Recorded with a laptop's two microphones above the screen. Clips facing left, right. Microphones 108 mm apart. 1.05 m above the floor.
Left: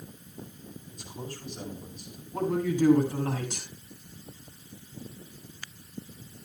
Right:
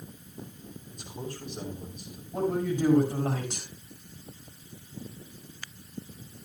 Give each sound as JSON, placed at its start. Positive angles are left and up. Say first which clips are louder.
{"t": 0.9, "sound": "a man speaking", "louder": "right 2 dB", "side_deg": -55, "distance_m": 6.0}
{"t": 2.3, "sound": "a man speaking", "louder": "left 1 dB", "side_deg": -50, "distance_m": 8.0}